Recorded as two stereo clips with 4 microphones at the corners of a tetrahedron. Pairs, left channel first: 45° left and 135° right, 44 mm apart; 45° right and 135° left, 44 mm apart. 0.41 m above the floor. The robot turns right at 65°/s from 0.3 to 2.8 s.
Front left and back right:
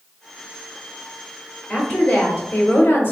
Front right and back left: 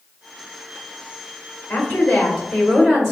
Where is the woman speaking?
40° right, 1.0 m; by 3.1 s 30° left, 1.0 m.